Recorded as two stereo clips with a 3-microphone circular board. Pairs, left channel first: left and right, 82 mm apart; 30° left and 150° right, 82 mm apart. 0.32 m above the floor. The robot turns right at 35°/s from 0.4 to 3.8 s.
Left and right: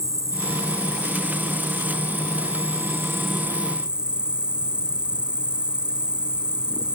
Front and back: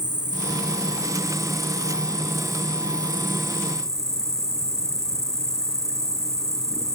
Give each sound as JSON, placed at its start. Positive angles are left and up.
{"t": 0.0, "sound": "an insect", "azimuth_deg": -130}